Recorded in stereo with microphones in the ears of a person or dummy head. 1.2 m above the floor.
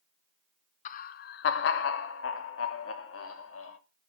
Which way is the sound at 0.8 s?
40° left (ahead or behind).